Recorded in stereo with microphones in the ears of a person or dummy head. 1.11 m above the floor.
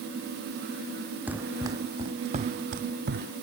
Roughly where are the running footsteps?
Centre.